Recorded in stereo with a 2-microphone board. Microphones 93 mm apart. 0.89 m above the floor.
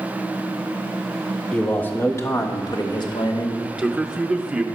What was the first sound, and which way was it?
A man speaking, 10° left (ahead or behind).